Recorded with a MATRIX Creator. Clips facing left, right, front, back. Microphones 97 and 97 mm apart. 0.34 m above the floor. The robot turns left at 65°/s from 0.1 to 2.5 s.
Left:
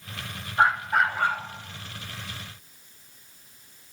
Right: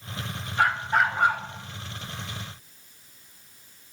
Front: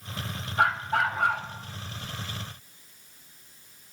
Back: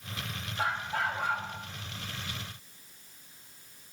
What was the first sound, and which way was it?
A dog barking, 25° left.